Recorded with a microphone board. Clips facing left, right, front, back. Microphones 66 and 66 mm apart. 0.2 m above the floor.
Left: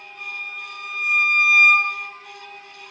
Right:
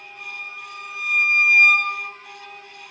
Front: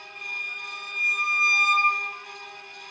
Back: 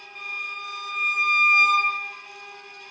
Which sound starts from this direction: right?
A violin, at 0.1 s.